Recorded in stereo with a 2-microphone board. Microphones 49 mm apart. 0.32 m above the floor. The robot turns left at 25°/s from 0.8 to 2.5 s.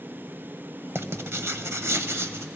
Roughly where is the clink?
I don't hear a clink.